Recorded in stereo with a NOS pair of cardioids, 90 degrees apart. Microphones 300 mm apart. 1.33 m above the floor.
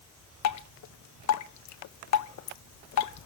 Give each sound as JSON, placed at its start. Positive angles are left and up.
{"t": 0.4, "sound": "dripping", "azimuth_deg": 60, "distance_m": 1.3}